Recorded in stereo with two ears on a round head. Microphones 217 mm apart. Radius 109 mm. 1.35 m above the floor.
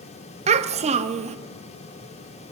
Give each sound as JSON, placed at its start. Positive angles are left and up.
{"t": 0.5, "sound": "a child speaking", "side_deg": -25, "distance_m": 0.8}